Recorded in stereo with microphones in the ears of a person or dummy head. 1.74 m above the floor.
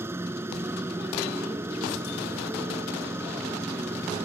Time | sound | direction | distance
0.0 | a motorcycle | 15° right (ahead or behind) | ?